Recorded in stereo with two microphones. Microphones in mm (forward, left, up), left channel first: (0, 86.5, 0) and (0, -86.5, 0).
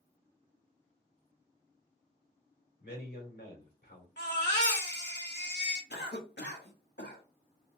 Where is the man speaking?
85° left, 2.5 m.